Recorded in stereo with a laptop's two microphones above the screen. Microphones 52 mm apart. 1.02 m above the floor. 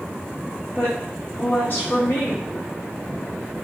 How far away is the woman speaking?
About 1.6 m.